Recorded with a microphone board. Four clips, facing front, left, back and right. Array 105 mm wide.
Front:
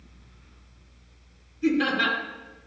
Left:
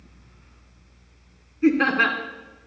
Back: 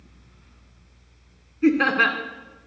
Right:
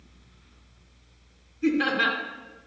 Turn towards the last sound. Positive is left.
turn(degrees=145)